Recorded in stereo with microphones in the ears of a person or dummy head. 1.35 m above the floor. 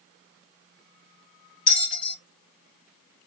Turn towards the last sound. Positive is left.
turn(degrees=40)  # may be behind; listen again after turning